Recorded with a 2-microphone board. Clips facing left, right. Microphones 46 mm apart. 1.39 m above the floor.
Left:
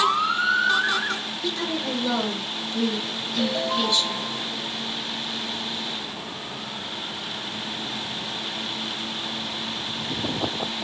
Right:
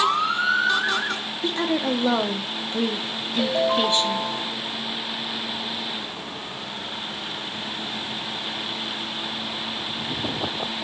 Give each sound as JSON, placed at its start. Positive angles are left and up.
{"t": 1.4, "sound": "a woman speaking", "side_deg": -30, "distance_m": 0.5}
{"t": 3.4, "sound": "a ringtone", "side_deg": -15, "distance_m": 0.6}